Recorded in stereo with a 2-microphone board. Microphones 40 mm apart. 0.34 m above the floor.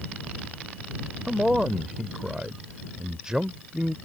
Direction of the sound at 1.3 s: 20° right (ahead or behind).